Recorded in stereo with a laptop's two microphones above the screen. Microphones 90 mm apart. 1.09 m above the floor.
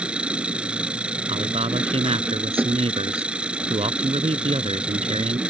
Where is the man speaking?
80° right.